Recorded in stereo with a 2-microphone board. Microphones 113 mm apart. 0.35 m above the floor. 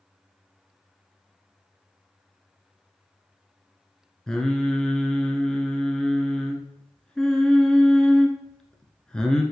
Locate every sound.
4.3 s singing: 5° left (ahead or behind), 1.1 m